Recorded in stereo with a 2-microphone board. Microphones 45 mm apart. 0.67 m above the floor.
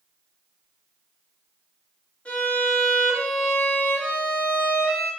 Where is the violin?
25° left (ahead or behind), 1.7 m.